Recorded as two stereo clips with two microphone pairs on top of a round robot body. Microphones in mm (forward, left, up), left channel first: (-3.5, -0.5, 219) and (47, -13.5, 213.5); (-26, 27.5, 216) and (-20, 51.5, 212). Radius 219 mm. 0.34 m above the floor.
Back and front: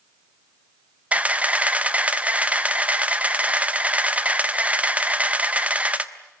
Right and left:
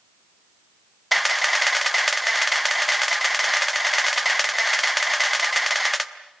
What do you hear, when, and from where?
1.1 s a camera shutter: straight ahead, 1.6 m